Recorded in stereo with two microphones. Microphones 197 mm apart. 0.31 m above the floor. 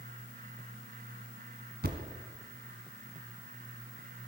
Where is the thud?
55° right (ahead or behind), 1.6 m.